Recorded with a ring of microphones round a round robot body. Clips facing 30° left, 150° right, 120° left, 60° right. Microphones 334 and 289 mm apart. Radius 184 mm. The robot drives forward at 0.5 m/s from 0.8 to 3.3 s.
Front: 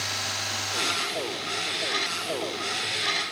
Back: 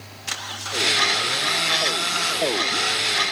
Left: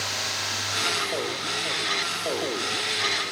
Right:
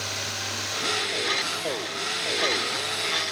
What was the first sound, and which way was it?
Only background noise.